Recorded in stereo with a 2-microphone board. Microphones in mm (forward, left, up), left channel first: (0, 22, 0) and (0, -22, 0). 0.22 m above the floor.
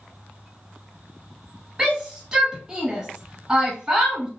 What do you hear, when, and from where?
1.8 s a shout: 15° right (ahead or behind), 1.4 m